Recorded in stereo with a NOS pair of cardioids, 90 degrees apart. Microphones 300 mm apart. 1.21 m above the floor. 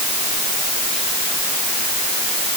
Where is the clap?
No clap in this recording.